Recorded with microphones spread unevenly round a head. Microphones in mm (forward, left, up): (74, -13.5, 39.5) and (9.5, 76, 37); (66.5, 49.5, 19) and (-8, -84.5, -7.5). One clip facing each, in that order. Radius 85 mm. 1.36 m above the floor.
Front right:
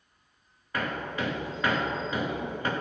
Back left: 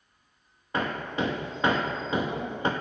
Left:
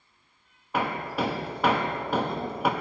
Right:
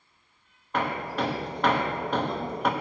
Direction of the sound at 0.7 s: 105° left.